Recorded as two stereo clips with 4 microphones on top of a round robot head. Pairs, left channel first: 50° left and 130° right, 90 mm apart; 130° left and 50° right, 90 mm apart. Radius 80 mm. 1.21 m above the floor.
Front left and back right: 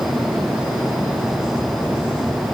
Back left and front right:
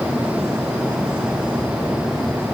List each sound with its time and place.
Only background noise.